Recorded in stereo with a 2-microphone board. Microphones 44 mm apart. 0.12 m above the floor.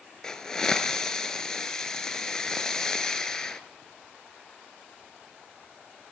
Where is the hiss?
15° left (ahead or behind), 0.6 m.